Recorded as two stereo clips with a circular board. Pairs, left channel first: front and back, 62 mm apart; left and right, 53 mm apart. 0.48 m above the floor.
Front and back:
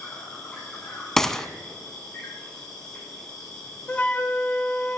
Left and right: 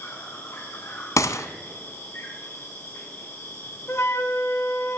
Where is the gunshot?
85° left, 0.9 m.